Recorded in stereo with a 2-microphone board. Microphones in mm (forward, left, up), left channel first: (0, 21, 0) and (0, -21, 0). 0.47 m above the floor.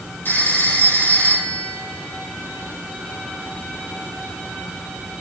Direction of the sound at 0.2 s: 50° left (ahead or behind).